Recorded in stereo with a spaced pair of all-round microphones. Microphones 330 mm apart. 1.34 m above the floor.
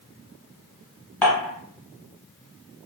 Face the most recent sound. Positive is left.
turn(degrees=5)  # may be behind; listen again after turning